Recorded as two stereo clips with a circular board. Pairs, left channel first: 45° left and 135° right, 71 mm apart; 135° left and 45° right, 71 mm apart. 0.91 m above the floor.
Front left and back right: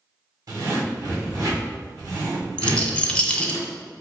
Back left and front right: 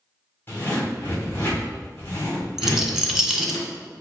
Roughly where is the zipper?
Behind.